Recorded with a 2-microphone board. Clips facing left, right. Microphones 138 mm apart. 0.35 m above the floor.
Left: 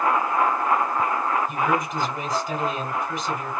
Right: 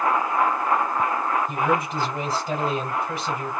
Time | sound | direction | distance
1.5 | a man speaking | 35° right (ahead or behind) | 2 m